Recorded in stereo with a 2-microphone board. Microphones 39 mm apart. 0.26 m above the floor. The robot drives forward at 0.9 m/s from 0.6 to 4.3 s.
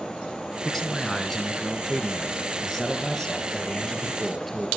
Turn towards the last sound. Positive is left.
turn(degrees=5)  # may be behind; listen again after turning